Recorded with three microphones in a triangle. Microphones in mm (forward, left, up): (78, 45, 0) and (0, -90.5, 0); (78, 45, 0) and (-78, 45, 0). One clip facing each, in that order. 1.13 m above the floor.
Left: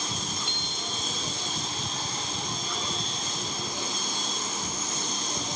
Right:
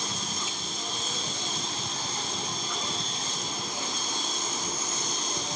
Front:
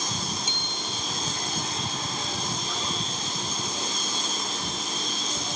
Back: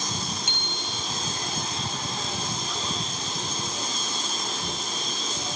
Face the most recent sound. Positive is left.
turn(degrees=155)